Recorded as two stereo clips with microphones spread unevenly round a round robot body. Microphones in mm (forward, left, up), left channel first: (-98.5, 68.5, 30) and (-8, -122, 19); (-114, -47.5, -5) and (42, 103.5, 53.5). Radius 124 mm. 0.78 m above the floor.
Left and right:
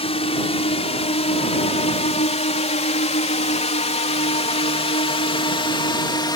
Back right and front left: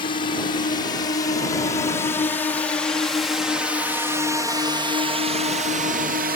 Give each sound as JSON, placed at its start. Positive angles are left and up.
{"t": 0.0, "sound": "a drone", "azimuth_deg": 170}